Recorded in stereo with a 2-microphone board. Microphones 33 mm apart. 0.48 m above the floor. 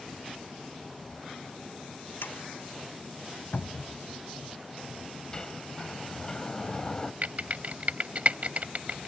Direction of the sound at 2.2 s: 85° left.